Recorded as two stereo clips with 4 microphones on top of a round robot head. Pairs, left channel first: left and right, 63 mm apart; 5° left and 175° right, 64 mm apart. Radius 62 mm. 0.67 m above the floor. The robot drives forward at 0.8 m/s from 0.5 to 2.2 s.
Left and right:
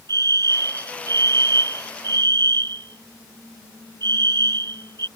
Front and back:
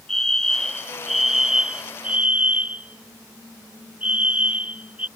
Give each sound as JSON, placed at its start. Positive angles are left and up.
{"t": 0.1, "sound": "a fire alarm", "azimuth_deg": -80}